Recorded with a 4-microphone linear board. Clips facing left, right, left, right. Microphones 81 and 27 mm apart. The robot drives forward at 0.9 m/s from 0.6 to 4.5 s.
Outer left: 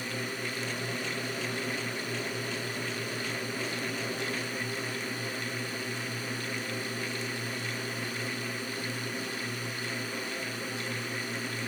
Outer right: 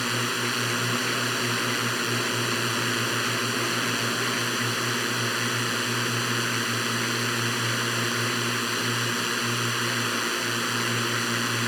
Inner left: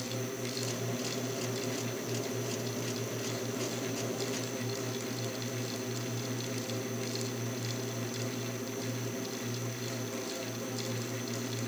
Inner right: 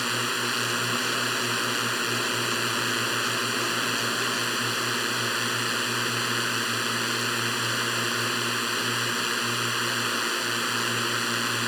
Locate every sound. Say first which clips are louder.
0.0 s a drone: outer right 8 dB, inner right 11 dB; 80° right; by 11.7 s 75° right (ahead or behind)